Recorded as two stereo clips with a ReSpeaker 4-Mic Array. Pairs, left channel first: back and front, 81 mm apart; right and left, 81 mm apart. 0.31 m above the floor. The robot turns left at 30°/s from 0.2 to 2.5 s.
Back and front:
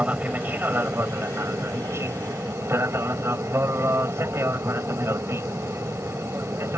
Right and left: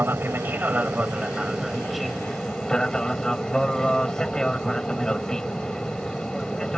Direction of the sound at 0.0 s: 55° left.